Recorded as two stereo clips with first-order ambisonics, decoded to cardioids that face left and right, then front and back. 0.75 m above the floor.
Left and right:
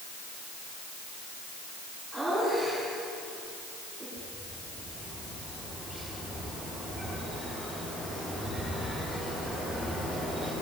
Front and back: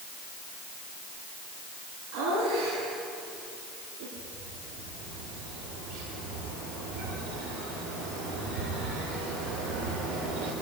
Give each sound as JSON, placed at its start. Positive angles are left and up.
{"t": 2.1, "sound": "laughter", "azimuth_deg": 175, "distance_m": 8.0}
{"t": 4.2, "sound": "a bird", "azimuth_deg": 175, "distance_m": 10.0}